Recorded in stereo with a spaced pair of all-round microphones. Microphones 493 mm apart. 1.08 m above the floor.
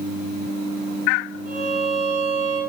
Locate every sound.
1.4 s a violin: 85° left, 7 m